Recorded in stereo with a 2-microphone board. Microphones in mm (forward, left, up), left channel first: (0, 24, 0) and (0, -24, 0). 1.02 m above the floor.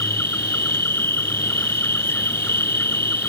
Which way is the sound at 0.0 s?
50° left (ahead or behind).